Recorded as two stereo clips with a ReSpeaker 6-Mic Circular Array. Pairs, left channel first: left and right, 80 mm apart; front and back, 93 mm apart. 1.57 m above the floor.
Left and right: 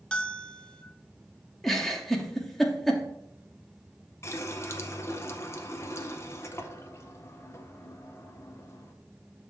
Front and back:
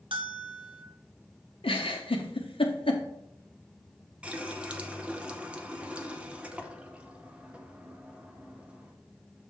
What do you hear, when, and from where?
0.1 s a bell: 165° left, 0.7 m
1.6 s a giggle: straight ahead, 0.9 m
4.2 s a running tap: 110° left, 0.7 m